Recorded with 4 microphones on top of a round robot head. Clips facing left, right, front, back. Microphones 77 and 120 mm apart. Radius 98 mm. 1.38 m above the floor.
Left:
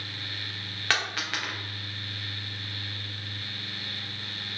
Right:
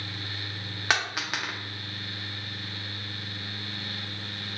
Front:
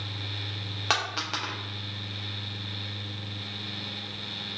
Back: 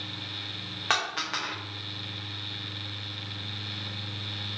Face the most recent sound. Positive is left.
turn(degrees=-35)